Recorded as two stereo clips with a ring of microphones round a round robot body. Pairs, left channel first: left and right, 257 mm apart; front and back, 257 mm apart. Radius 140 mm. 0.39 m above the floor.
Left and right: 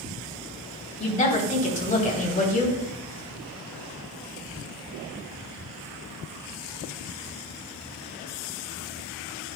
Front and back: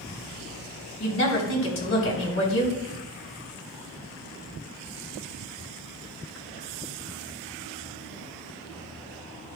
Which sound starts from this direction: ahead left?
A woman speaking, at 1.0 s.